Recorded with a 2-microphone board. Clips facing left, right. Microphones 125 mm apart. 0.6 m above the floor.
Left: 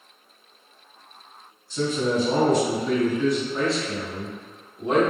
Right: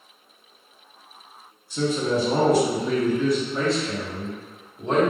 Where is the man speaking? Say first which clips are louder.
Right 1 dB; 10° right (ahead or behind), 1.1 m; by 5.1 s 10° left (ahead or behind), 1.3 m.